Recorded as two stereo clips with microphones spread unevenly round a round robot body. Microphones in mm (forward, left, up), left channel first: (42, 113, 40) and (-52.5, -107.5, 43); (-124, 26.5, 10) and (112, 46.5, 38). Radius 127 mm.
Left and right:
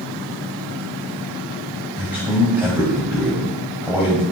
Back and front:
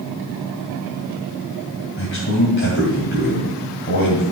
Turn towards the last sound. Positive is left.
turn(degrees=165)